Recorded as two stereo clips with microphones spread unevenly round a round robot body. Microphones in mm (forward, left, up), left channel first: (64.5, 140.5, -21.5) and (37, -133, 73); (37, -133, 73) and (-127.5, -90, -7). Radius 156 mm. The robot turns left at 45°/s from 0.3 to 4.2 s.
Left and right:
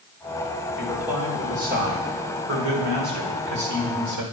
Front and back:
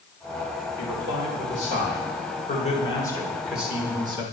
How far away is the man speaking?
About 2.5 m.